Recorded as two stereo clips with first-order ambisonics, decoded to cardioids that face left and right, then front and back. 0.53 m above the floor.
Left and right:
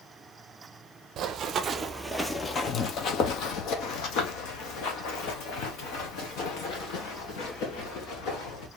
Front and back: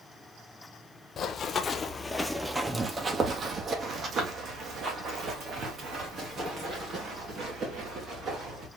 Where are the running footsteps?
50° right, 0.7 m; by 8.7 s 125° left, 3.5 m.